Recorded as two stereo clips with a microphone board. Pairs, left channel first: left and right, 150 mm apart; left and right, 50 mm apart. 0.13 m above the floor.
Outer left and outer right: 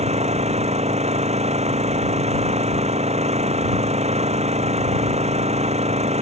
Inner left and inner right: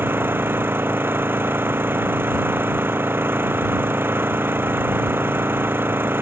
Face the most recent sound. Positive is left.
turn(degrees=-45)  # may be behind; listen again after turning